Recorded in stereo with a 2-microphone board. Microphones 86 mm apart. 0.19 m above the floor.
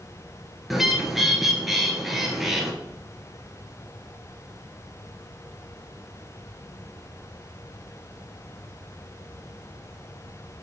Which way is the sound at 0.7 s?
Centre (ahead or behind).